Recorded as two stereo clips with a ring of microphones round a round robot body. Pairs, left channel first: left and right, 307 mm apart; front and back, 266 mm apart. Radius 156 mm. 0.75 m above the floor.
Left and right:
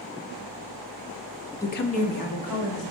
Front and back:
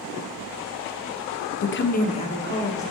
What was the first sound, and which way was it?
A woman speaking, 10° left.